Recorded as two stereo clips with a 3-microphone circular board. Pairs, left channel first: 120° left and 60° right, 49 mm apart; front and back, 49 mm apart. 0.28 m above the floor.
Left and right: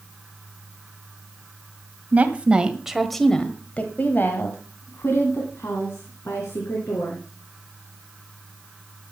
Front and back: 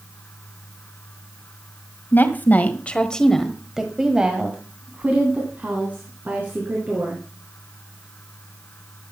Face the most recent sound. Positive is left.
turn(degrees=135)